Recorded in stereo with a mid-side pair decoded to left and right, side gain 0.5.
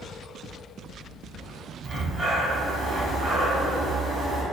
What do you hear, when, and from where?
1.8 s breathing: 25° right, 1.1 m